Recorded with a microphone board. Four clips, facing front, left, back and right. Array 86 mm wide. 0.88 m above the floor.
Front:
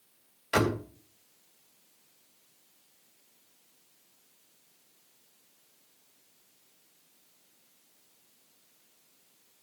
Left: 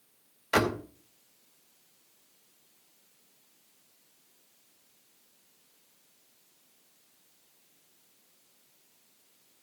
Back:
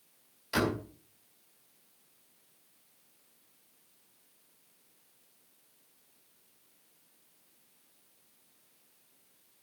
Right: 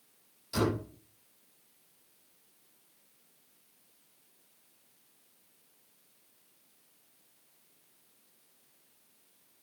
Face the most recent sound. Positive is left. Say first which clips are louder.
# left 4 dB, front 3 dB
turn(degrees=65)